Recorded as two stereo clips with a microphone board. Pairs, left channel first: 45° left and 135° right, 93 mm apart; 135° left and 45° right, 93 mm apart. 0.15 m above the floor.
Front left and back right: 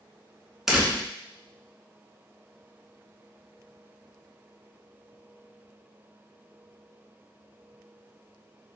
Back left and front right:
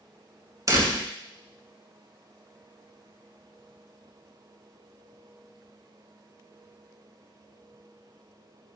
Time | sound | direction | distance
0.7 | a door slam | 55° right | 1.0 m